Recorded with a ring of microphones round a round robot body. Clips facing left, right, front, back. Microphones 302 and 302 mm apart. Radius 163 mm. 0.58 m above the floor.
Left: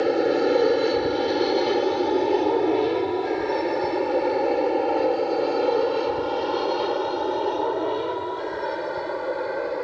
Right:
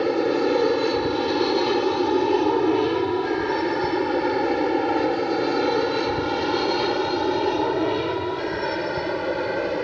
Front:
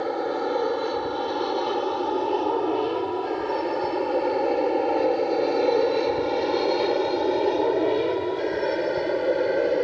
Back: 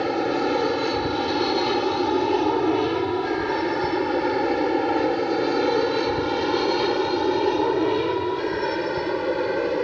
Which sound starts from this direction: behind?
An aircraft, at 0.0 s.